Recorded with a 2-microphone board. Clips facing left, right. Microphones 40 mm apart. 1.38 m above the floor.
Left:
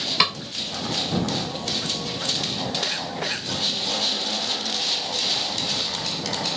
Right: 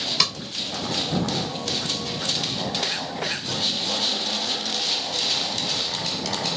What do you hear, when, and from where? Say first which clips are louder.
0.2 s a snare drum: left 5 dB; 20° left (ahead or behind)